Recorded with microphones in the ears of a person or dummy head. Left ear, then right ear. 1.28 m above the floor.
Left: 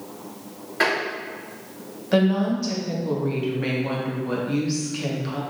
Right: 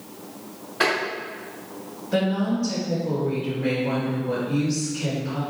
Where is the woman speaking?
50° left (ahead or behind), 1.1 m.